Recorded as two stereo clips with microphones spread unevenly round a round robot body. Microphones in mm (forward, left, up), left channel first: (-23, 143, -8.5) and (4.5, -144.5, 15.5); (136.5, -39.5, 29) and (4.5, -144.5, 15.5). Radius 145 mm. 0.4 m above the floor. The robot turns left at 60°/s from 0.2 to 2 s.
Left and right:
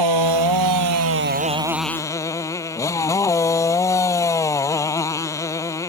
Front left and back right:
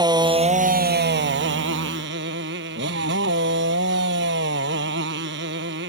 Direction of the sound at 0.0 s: 75° right.